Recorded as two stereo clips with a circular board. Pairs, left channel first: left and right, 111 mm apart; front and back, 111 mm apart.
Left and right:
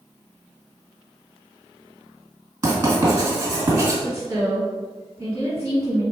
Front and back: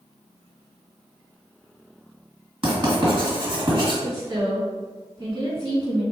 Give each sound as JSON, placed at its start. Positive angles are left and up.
{"t": 2.6, "sound": "writing", "azimuth_deg": -150, "distance_m": 1.9}
{"t": 4.0, "sound": "a woman speaking", "azimuth_deg": -145, "distance_m": 2.0}